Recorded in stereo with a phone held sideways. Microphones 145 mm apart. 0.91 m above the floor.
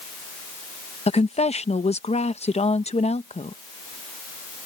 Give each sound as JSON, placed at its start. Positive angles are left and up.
{"t": 1.1, "sound": "a woman speaking", "side_deg": 45}